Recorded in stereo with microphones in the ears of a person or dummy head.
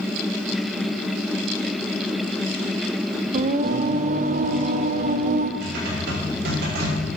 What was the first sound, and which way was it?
Singing, 50° right (ahead or behind).